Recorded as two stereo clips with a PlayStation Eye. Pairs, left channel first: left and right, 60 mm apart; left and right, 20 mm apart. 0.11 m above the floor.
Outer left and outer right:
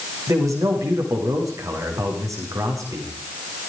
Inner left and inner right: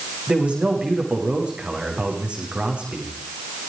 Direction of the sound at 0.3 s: 75° right (ahead or behind).